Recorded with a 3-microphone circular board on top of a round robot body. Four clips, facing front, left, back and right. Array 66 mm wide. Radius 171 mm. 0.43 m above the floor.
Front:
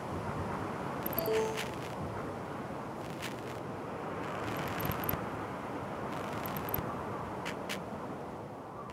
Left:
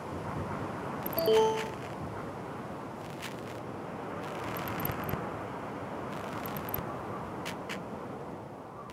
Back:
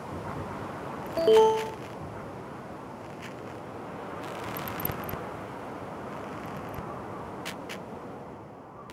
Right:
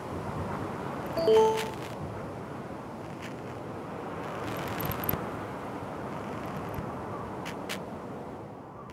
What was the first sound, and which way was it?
An alarm, 165° right.